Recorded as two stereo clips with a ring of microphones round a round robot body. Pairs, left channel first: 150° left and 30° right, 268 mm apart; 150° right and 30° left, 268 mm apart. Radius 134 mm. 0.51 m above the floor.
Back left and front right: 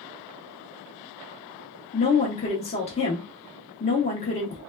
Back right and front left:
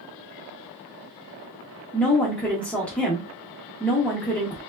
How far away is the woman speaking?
About 0.7 m.